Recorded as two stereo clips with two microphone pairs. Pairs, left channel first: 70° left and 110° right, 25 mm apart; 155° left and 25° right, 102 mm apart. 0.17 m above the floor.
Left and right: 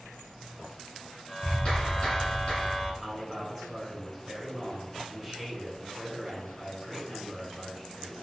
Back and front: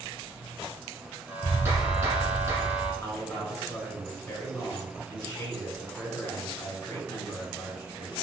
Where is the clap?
30° left, 1.6 m.